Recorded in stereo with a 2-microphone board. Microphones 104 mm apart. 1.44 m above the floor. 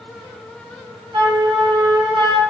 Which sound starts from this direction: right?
A flute, at 1.1 s.